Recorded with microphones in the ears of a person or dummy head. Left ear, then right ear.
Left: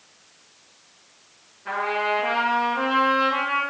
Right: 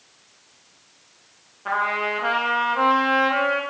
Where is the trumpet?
55° right (ahead or behind), 1.6 m.